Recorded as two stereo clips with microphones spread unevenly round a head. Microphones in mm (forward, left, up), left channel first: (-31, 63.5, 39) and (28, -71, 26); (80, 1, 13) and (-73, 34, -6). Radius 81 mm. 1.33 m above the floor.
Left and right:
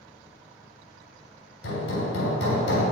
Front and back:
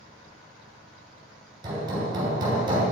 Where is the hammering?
105° left, 3 m.